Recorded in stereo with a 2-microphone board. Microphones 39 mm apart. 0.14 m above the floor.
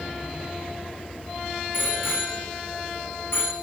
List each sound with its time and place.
1.7 s a bicycle bell: 80° left, 7.5 m